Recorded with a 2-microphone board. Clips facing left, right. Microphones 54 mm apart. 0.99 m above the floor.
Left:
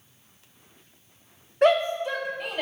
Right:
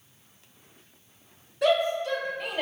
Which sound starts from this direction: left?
A shout, at 1.6 s.